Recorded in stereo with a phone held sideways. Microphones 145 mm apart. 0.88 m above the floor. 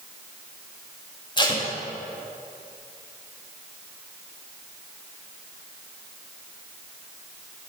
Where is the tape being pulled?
30° left (ahead or behind), 1.6 m.